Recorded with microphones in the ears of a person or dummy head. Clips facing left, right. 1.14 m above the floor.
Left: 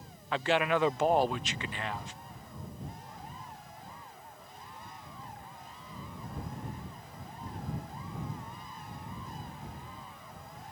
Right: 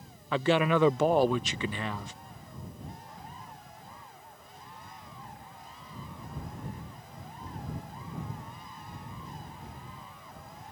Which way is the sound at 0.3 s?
75° right (ahead or behind).